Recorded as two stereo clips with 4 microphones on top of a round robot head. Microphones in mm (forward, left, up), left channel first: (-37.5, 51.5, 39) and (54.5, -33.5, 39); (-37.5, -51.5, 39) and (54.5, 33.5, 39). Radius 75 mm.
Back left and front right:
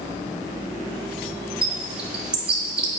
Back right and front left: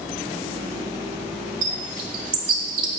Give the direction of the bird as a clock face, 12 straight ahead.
11 o'clock.